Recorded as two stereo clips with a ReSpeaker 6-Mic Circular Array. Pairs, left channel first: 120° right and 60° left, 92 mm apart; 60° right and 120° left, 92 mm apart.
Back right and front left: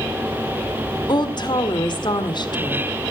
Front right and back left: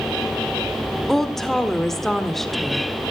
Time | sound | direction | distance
1.1 | a woman speaking | 145° right | 1.5 m